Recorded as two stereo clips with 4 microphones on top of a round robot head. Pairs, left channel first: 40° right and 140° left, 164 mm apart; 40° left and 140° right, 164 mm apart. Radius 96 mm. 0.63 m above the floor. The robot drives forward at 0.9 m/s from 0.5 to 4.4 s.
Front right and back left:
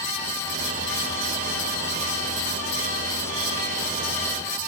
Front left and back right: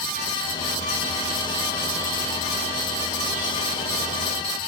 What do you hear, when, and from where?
Only background noise.